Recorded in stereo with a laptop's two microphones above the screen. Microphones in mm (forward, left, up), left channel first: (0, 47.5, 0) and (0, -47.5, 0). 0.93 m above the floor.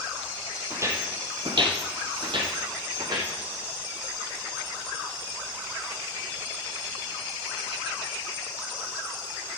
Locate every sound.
0.7 s footsteps: 25° right (ahead or behind), 1.8 m; by 3.3 s 45° right (ahead or behind), 3 m